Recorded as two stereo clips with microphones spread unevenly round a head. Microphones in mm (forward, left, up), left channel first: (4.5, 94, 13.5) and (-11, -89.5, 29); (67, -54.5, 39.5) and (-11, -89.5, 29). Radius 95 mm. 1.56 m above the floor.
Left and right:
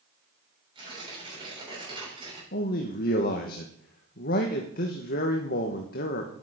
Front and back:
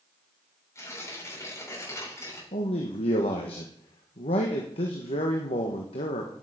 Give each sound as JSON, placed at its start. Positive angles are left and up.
{"t": 0.8, "sound": "tearing paper", "azimuth_deg": -30, "distance_m": 7.0}
{"t": 2.5, "sound": "a man speaking", "azimuth_deg": 40, "distance_m": 1.3}